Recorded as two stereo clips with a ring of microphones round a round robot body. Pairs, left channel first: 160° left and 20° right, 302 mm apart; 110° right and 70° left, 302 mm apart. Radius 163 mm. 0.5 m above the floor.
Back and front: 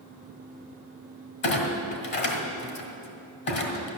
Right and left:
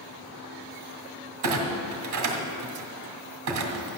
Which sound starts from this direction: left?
A clunk, at 1.4 s.